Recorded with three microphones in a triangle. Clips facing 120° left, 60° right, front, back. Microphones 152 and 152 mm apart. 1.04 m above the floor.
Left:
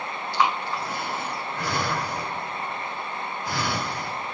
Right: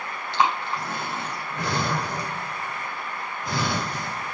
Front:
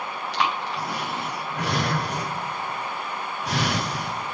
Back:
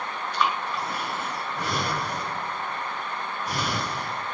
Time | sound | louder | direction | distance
0.3 | breathing | right 1 dB, even | 10° left | 3.5 m